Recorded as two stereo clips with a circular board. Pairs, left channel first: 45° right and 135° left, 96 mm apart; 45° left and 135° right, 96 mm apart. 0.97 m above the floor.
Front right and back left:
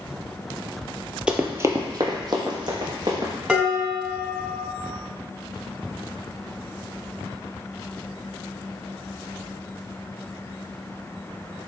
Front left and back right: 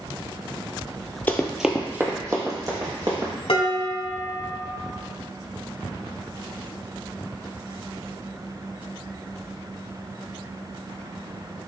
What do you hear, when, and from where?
1.3 s running footsteps: 75° left, 1.0 m; by 3.3 s straight behind, 3 m
3.5 s dishes clattering: 60° left, 2 m